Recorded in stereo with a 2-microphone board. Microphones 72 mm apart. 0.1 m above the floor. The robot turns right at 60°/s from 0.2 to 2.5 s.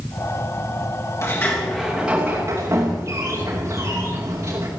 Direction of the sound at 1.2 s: 140° left.